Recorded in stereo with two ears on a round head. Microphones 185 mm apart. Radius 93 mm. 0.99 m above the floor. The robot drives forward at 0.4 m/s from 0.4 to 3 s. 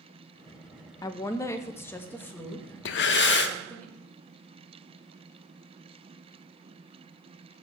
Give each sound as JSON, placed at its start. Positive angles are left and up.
{"t": 1.0, "sound": "a woman speaking", "side_deg": 20, "distance_m": 0.6}
{"t": 2.9, "sound": "breathing", "side_deg": 60, "distance_m": 0.6}